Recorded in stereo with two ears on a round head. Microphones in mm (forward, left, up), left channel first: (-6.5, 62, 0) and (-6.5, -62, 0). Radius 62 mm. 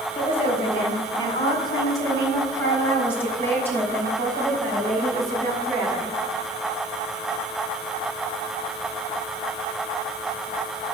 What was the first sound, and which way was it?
A woman speaking, 40° left (ahead or behind).